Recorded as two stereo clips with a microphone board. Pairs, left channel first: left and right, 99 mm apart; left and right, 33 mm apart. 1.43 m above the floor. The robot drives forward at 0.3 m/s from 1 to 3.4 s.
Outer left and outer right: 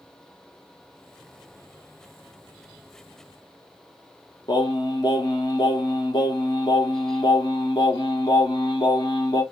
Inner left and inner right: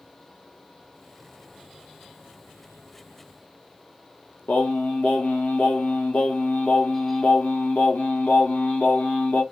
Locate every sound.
4.5 s singing: 50° left (ahead or behind), 0.7 m